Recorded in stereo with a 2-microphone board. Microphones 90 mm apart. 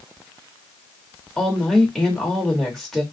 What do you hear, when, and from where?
1.4 s a woman speaking: 5° left (ahead or behind), 1.2 m